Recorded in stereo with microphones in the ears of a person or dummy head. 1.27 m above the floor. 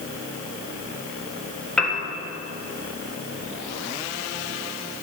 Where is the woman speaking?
I don't hear a woman speaking.